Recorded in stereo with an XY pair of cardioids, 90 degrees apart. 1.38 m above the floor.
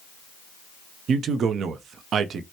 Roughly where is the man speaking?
Right.